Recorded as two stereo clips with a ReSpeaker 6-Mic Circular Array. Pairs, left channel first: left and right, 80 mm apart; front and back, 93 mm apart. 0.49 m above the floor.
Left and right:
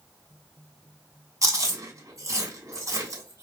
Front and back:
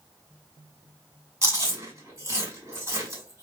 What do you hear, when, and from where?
1.4 s chewing: 125° right, 2.0 m